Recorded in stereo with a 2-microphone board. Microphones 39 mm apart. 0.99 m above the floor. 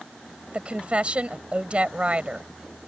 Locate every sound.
0.5 s a woman speaking: 30° right (ahead or behind)